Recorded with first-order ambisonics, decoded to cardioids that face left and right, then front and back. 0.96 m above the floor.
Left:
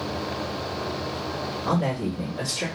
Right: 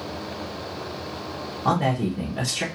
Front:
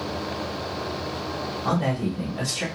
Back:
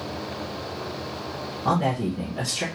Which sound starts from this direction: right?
A man speaking, at 1.6 s.